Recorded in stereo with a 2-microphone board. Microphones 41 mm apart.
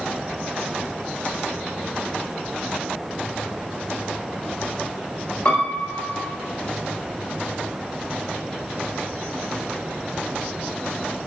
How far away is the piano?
About 1.3 m.